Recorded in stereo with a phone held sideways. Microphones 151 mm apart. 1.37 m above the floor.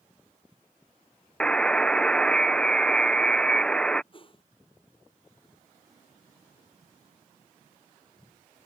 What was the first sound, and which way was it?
A buzzer, 5° left (ahead or behind).